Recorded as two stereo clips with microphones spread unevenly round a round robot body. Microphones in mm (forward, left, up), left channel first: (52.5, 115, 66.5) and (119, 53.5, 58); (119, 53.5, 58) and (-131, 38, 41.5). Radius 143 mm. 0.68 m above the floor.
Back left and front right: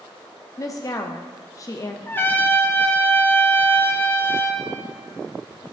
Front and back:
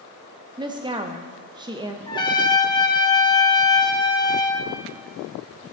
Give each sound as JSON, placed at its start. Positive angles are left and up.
{"t": 0.6, "sound": "a woman speaking", "azimuth_deg": 135, "distance_m": 0.6}
{"t": 2.1, "sound": "a trumpet", "azimuth_deg": 75, "distance_m": 1.0}